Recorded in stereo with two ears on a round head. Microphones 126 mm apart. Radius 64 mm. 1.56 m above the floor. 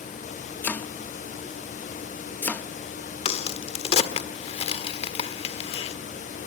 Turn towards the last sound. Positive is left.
turn(degrees=45)  # may be behind; listen again after turning